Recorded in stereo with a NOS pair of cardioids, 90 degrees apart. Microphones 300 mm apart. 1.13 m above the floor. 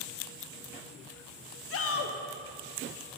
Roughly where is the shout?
Ahead left.